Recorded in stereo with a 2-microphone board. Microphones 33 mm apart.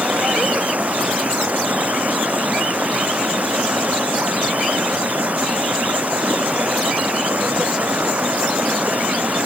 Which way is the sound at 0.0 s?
50° right (ahead or behind).